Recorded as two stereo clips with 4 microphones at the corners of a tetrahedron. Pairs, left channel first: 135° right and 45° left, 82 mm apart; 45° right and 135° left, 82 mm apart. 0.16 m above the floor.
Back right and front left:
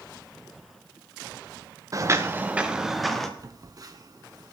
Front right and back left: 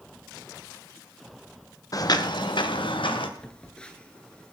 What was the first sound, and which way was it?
Footsteps, straight ahead.